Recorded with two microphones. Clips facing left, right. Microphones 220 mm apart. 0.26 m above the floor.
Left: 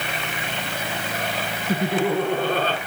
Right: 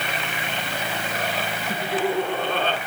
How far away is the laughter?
About 3.5 m.